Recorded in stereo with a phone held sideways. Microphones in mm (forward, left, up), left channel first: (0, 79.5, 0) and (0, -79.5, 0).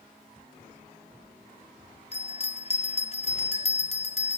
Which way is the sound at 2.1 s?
40° left (ahead or behind).